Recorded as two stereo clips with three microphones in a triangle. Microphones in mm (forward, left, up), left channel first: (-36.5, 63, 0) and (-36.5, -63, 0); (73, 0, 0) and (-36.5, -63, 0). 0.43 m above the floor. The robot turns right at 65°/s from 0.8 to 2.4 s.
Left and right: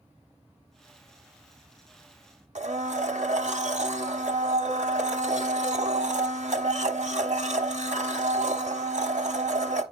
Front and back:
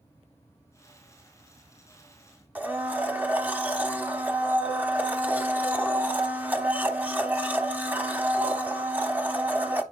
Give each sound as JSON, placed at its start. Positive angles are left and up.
{"t": 2.5, "sound": "a blender", "azimuth_deg": -75, "distance_m": 0.9}